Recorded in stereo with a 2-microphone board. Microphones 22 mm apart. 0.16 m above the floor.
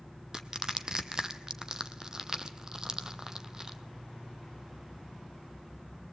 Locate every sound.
0.3 s crushing: 30° right (ahead or behind), 0.9 m